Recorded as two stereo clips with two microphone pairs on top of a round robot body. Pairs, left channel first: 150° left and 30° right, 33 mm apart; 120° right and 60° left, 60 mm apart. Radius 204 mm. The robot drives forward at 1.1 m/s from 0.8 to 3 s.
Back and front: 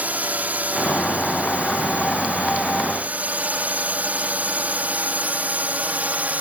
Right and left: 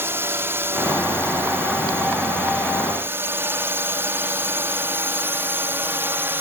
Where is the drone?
10° left; by 6.4 s 5° left.